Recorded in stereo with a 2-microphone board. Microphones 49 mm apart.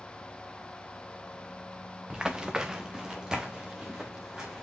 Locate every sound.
2.1 s running footsteps: 15° right (ahead or behind), 0.8 m